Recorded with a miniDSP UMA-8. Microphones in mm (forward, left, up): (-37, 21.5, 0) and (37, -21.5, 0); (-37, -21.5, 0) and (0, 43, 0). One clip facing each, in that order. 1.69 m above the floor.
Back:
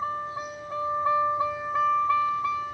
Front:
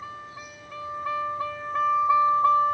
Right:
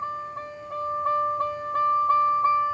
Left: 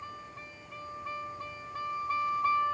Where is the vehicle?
160° right; by 2.8 s 50° right.